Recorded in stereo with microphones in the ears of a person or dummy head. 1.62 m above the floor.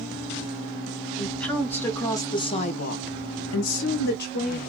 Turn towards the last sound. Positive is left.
turn(degrees=45)  # may be behind; listen again after turning